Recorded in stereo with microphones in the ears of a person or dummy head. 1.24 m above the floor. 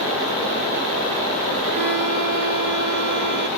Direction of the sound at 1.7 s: 60° right (ahead or behind).